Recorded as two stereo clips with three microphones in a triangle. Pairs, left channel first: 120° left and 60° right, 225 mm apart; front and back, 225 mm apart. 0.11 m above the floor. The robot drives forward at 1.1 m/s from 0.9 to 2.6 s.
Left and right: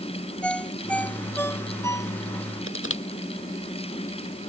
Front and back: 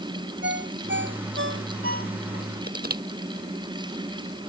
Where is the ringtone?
155° right; by 2.5 s 165° right.